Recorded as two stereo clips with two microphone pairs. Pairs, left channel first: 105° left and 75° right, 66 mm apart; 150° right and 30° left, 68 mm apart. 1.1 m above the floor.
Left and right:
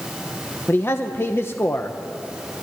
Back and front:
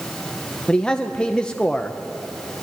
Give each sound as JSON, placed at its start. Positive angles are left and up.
{"t": 0.7, "sound": "a man speaking", "azimuth_deg": 140, "distance_m": 0.8}